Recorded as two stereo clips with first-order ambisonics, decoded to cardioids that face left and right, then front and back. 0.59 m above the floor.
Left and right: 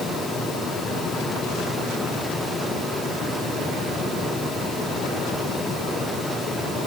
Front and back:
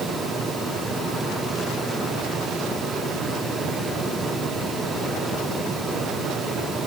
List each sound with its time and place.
Only background noise.